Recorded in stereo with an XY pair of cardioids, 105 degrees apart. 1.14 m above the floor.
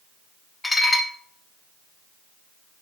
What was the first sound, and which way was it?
Dishes clattering, 15° left.